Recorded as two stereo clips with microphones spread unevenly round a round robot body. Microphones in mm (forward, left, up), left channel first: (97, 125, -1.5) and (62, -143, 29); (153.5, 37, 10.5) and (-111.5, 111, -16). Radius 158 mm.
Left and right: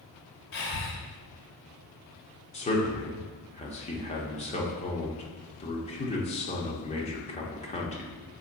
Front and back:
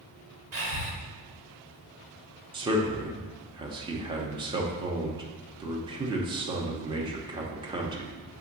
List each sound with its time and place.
0.5 s breathing: 135° left, 1.5 m
2.5 s a man speaking: 115° left, 1.0 m